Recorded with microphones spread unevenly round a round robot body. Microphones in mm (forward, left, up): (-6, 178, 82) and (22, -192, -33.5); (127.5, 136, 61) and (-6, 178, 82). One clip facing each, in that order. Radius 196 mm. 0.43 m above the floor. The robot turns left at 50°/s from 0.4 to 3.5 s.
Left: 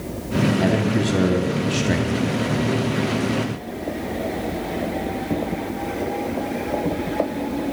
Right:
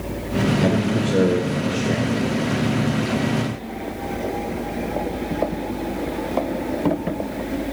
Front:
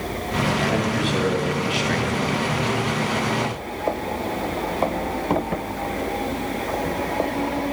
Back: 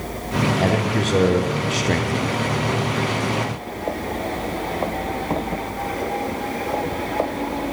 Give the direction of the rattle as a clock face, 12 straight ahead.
No rattle in this recording.